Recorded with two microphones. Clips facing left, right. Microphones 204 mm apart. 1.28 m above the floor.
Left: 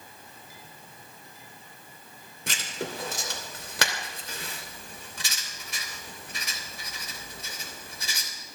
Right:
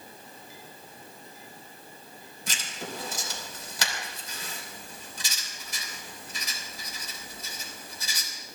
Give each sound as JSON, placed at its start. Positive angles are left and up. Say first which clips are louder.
{"t": 2.5, "sound": "writing", "louder": "left 4 dB", "side_deg": 70, "distance_m": 3.0}